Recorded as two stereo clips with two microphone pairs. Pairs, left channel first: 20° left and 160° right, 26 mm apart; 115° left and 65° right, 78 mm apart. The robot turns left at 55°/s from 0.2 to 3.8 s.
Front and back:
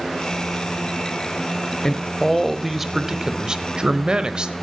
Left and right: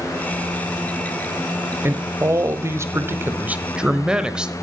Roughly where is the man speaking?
Ahead right.